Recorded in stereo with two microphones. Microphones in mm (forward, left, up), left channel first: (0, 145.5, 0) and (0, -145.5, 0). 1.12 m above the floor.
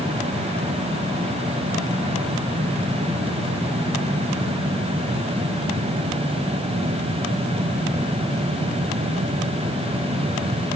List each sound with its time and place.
Only background noise.